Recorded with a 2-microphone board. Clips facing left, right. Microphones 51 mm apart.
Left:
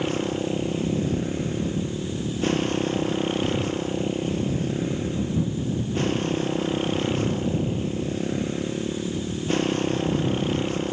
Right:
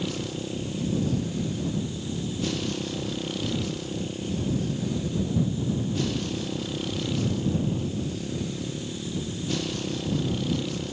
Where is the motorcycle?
35° left (ahead or behind).